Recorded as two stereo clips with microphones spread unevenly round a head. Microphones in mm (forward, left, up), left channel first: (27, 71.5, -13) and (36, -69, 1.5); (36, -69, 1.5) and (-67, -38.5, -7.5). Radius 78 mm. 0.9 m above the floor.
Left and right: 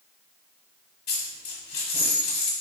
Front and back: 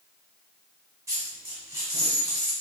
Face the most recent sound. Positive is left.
turn(degrees=90)